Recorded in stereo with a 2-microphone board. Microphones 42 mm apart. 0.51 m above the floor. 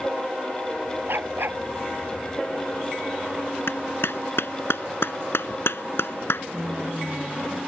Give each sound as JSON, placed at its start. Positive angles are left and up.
{"t": 1.1, "sound": "a dog barking", "side_deg": -65}
{"t": 3.7, "sound": "a clap", "side_deg": 70}
{"t": 6.5, "sound": "a woman speaking", "side_deg": -50}